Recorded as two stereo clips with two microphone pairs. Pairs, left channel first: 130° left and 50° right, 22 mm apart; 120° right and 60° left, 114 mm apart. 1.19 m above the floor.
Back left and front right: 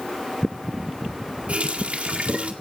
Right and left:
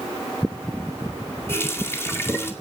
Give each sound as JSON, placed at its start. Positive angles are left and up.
{"t": 1.5, "sound": "a running tap", "azimuth_deg": -55, "distance_m": 2.0}